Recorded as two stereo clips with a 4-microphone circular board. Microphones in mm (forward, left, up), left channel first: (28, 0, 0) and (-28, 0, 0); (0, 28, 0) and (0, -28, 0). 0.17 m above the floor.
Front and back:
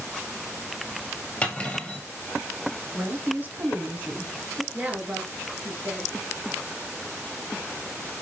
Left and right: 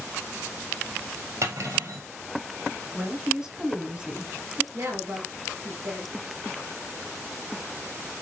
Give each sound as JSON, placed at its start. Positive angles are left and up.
{"t": 1.4, "sound": "cutlery clinking", "azimuth_deg": -70, "distance_m": 2.5}
{"t": 2.9, "sound": "a woman speaking", "azimuth_deg": -155, "distance_m": 1.6}
{"t": 4.7, "sound": "a woman speaking", "azimuth_deg": -120, "distance_m": 2.5}